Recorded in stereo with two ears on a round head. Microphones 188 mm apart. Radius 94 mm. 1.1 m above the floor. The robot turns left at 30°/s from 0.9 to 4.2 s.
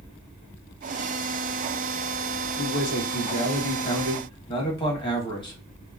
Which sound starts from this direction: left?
A man speaking, at 2.6 s.